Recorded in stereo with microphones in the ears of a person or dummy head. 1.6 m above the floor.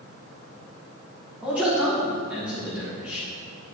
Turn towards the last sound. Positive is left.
turn(degrees=-5)  # may be behind; listen again after turning